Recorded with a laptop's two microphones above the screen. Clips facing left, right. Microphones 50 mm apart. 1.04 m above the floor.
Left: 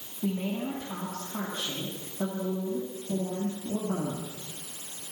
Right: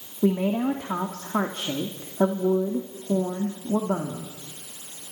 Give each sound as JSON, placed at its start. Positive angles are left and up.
{"t": 0.2, "sound": "a woman speaking", "side_deg": -60, "distance_m": 3.0}